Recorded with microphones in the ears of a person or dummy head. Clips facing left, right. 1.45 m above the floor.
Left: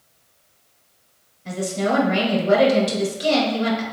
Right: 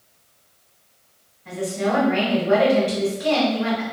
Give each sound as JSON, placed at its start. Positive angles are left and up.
{"t": 1.4, "sound": "a woman speaking", "side_deg": 50, "distance_m": 1.2}